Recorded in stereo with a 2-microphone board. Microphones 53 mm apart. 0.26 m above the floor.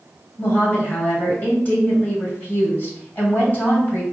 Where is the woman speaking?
30° left (ahead or behind), 1.6 m.